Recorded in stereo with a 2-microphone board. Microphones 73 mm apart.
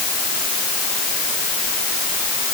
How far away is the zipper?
I don't hear a zipper.